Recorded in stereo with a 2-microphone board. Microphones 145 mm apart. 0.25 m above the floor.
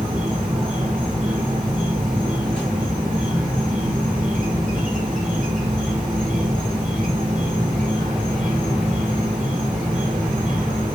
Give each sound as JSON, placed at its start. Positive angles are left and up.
{"t": 0.0, "sound": "an insect", "side_deg": -60, "distance_m": 3.0}